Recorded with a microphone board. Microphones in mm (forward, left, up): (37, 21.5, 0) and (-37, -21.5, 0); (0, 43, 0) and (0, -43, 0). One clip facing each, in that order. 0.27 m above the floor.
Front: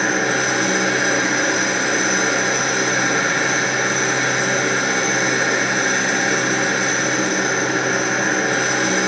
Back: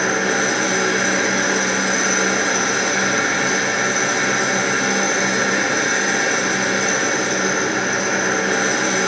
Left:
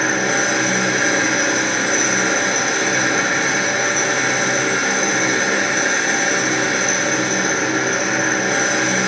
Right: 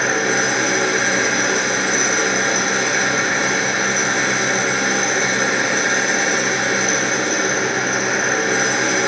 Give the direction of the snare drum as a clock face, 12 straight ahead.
No snare drum in this recording.